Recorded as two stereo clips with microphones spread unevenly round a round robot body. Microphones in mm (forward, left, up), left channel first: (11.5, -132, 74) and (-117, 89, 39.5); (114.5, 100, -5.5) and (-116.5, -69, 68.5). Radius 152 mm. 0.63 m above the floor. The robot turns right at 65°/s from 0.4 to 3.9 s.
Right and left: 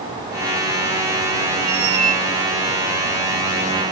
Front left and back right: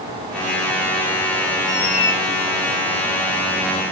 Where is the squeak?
70° left, 4 m; by 2.2 s 105° left, 4 m.